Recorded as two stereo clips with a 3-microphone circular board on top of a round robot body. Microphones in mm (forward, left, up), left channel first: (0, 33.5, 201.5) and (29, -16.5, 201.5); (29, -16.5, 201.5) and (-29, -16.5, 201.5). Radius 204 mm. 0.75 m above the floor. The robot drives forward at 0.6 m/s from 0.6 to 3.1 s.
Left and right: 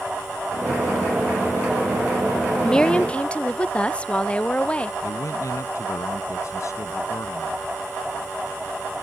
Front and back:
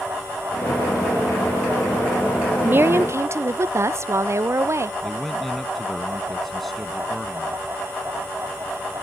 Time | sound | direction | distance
2.6 | a woman speaking | 170° right | ?
5.0 | a man speaking | 90° left | ?